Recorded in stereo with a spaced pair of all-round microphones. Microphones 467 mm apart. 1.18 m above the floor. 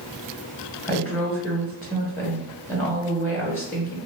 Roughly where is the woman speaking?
Centre.